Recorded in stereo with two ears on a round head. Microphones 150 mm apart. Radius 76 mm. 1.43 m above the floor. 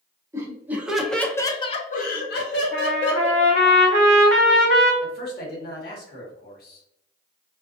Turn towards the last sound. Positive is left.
turn(degrees=65)  # may be behind; listen again after turning